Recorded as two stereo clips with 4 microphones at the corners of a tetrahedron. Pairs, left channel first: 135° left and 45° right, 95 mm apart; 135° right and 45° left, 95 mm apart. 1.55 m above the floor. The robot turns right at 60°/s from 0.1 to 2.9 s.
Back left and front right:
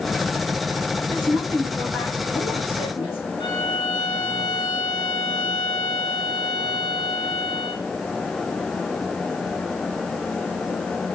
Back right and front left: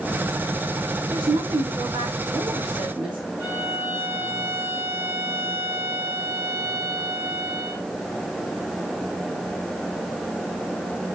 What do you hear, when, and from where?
1.1 s a woman speaking: 10° left, 4.5 m; by 3.2 s 120° left, 4.5 m
3.4 s a violin: 105° left, 1.4 m